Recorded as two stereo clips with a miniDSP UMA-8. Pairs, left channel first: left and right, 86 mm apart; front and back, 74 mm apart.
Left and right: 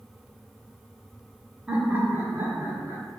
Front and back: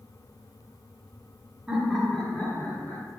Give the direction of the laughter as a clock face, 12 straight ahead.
5 o'clock.